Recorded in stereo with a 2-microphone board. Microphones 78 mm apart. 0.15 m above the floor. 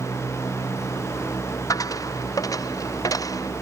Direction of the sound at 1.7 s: 45° left (ahead or behind).